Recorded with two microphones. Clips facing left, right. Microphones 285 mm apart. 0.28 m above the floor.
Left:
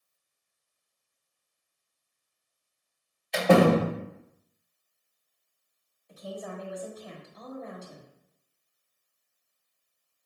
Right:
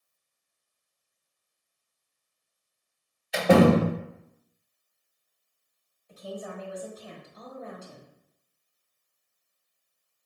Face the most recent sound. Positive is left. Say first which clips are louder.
# right 1 dB
turn(degrees=-5)  # may be behind; listen again after turning